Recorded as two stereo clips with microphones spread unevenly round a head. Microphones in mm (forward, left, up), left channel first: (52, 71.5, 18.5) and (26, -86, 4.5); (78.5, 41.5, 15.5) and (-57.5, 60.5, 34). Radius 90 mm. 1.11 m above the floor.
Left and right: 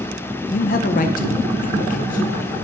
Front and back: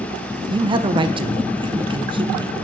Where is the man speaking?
115° left, 0.5 m.